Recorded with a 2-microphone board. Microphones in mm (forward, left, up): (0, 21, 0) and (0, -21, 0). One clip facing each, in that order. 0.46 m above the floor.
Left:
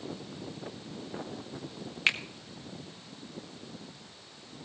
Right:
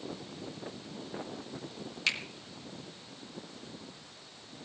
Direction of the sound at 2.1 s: 35° left (ahead or behind).